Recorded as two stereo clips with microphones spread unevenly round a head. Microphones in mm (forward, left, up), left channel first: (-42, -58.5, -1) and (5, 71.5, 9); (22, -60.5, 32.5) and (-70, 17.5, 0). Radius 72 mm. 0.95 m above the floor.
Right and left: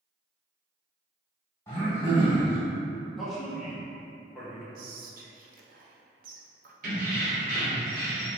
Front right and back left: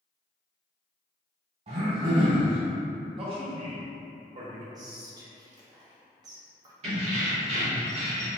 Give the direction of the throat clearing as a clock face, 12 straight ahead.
6 o'clock.